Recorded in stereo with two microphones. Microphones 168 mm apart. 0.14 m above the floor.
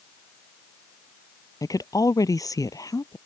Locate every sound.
1.6 s a woman speaking: 20° left (ahead or behind)